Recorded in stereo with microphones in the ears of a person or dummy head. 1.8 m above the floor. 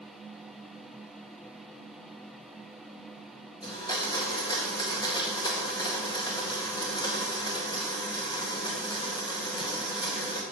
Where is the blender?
20° left (ahead or behind), 1.8 m.